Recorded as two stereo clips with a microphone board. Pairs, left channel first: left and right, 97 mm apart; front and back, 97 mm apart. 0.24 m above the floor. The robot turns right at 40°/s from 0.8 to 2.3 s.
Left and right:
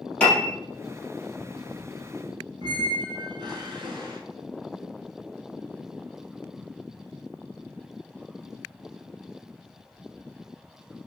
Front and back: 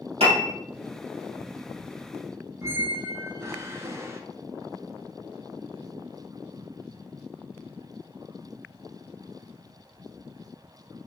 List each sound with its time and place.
0.2 s a piano: 170° left, 2 m
2.6 s a squeak: 125° right, 0.9 m